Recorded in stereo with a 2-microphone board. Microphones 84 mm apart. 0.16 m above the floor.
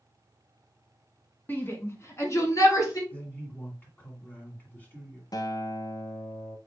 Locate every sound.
1.5 s a shout: 25° left (ahead or behind), 1.1 m; by 3.0 s 40° left (ahead or behind), 1.9 m
3.1 s a man speaking: 20° left (ahead or behind), 1.8 m
5.3 s a guitar: 50° left (ahead or behind), 0.6 m